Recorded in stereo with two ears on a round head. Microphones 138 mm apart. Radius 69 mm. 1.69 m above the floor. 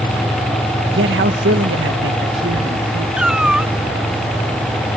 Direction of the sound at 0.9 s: 85° right.